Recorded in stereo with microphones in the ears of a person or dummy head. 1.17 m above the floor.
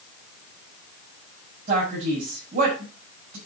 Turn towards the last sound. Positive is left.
turn(degrees=-45)  # may be behind; listen again after turning